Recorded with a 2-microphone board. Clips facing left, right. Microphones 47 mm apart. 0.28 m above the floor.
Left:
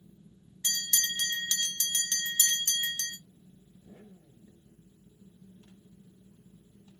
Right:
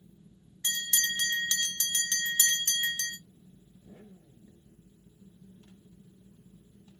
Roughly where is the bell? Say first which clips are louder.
Right 2 dB; right.